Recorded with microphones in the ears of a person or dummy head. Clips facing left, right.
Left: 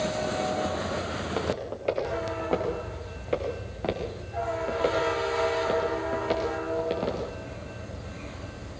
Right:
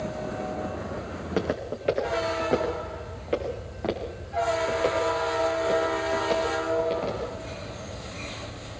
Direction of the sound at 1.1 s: 25° right (ahead or behind).